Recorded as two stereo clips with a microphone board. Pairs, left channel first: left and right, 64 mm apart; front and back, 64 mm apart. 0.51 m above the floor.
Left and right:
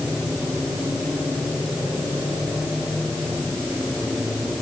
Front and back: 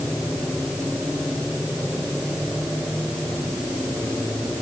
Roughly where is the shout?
I don't hear a shout.